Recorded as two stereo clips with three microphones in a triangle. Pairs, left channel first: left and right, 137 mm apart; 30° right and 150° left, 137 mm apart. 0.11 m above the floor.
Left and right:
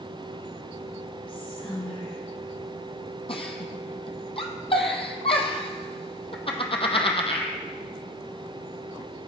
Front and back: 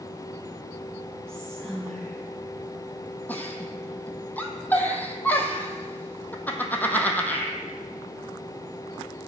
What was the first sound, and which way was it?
Whispering, 55° left.